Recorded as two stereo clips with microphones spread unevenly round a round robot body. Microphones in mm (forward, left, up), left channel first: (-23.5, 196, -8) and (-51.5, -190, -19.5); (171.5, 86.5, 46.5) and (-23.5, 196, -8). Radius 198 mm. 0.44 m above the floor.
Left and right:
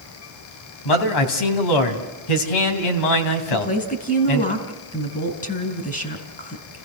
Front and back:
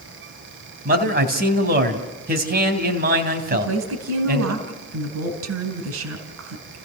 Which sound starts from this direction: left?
A man speaking, at 0.8 s.